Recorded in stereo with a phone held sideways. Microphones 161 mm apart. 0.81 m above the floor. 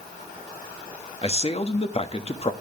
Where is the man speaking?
40° left (ahead or behind), 1.4 m.